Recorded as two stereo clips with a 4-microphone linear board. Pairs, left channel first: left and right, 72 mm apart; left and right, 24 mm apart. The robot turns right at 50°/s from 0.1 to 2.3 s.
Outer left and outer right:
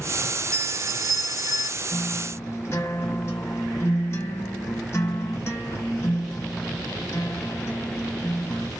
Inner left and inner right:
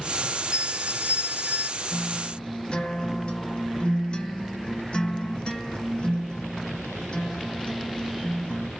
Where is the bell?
135° right, 1.0 m; by 1.7 s 75° right, 1.0 m.